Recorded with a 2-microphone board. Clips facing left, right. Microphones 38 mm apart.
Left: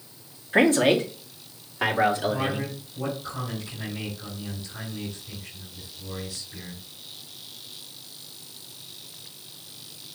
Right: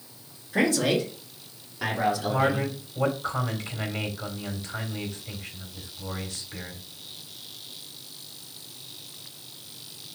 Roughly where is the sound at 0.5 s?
Left.